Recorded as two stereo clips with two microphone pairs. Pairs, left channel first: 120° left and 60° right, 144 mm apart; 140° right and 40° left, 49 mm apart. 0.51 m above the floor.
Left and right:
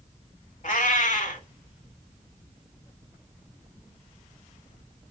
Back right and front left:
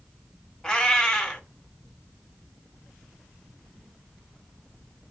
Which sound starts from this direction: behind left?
A cat meowing, at 0.6 s.